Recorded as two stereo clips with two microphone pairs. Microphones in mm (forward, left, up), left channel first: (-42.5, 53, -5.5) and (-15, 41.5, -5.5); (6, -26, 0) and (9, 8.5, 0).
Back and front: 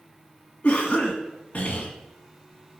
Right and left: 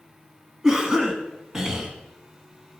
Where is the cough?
160° left, 1.9 m.